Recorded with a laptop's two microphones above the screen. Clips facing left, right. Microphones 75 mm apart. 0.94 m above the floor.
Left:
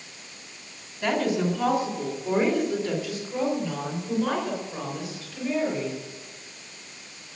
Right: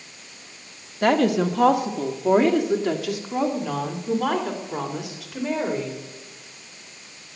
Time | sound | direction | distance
1.0 | a woman speaking | 60° right (ahead or behind) | 1.5 m